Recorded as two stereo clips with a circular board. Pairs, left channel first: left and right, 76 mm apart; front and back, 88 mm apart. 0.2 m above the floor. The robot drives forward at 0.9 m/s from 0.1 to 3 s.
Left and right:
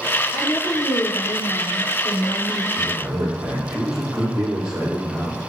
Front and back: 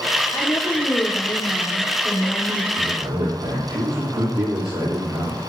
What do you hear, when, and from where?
0.3 s a woman speaking: 60° left, 8 m; by 2.6 s 75° left, 7 m
2.8 s a man speaking: 170° right, 9 m